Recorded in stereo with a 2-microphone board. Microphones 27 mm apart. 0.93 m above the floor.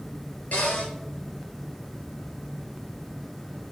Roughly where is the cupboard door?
Left.